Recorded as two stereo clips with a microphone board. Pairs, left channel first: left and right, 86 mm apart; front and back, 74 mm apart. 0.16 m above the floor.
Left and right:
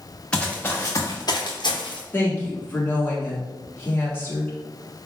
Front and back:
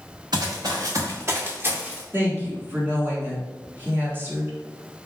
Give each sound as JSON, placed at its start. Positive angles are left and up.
{"t": 0.3, "sound": "running footsteps", "azimuth_deg": 165, "distance_m": 1.1}
{"t": 2.1, "sound": "a woman speaking", "azimuth_deg": 145, "distance_m": 1.4}